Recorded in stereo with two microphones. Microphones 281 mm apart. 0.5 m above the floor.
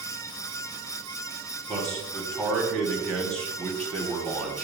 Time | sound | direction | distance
1.7 | a man speaking | 5° left (ahead or behind) | 1.4 m